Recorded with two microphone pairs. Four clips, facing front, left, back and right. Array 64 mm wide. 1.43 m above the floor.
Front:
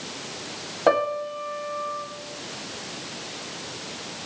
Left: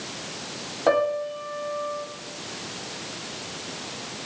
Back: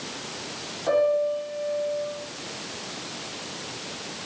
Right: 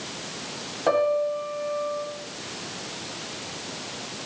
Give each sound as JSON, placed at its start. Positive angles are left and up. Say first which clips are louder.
{"t": 0.9, "sound": "a piano", "louder": "even, even", "azimuth_deg": 5, "distance_m": 2.0}